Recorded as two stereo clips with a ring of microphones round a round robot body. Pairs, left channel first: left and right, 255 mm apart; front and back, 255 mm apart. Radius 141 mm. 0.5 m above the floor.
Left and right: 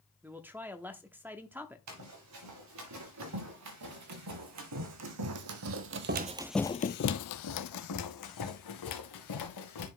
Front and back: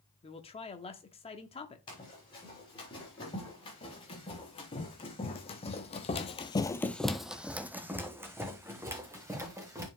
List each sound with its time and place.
0.2 s a man speaking: 20° right, 0.8 m
1.9 s running footsteps: 75° right, 4 m; by 9.9 s 100° left, 3 m